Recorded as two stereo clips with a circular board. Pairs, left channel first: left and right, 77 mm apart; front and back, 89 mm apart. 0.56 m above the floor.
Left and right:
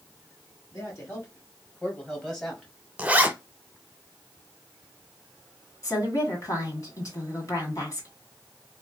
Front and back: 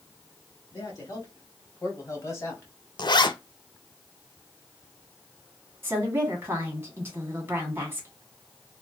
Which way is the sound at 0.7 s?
45° left.